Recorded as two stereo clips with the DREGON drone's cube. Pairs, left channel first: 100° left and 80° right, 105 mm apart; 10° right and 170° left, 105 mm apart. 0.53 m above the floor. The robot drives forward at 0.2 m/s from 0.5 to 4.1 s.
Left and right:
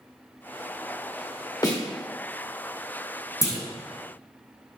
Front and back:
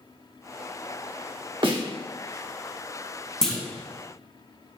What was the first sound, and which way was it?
A snare drum, 140° left.